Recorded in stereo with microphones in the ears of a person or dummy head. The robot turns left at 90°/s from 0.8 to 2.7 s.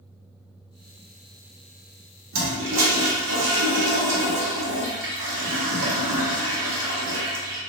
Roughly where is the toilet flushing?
Right.